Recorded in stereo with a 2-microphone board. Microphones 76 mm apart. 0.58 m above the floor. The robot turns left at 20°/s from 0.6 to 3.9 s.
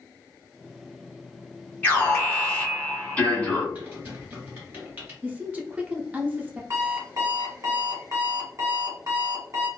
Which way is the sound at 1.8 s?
20° left (ahead or behind).